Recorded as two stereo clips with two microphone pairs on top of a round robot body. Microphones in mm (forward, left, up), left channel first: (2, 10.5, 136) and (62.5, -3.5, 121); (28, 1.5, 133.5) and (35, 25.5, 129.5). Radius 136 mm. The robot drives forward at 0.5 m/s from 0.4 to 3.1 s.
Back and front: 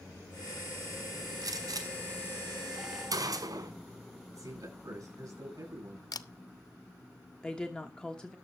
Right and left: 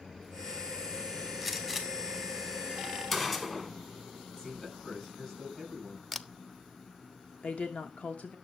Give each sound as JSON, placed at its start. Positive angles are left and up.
{"t": 1.4, "sound": "a gunshot", "azimuth_deg": -20, "distance_m": 3.0}
{"t": 4.3, "sound": "a man speaking", "azimuth_deg": -45, "distance_m": 9.0}
{"t": 6.1, "sound": "a camera shutter", "azimuth_deg": 170, "distance_m": 0.8}
{"t": 7.4, "sound": "a woman speaking", "azimuth_deg": -110, "distance_m": 1.4}